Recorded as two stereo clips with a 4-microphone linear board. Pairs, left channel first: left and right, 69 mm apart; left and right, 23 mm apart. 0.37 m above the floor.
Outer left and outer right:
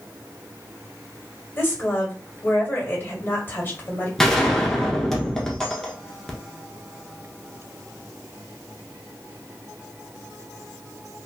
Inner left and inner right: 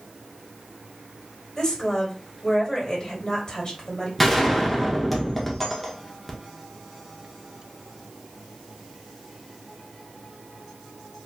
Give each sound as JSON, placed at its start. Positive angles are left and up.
{"t": 1.6, "sound": "a woman speaking", "side_deg": 30, "distance_m": 2.0}
{"t": 4.2, "sound": "a gunshot", "side_deg": 5, "distance_m": 1.0}